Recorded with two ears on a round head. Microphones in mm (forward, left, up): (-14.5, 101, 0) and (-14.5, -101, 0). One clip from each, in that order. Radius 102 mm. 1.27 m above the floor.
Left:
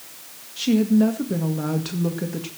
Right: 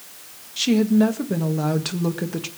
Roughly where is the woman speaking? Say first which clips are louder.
Right 1 dB; right.